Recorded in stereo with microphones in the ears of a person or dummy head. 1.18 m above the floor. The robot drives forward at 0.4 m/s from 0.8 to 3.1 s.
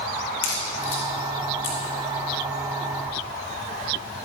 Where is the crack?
45° left (ahead or behind), 1.6 m; by 1.8 s 35° left (ahead or behind), 1.9 m.